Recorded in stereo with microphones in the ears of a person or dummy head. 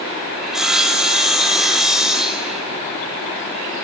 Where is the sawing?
Centre (ahead or behind), 0.5 m.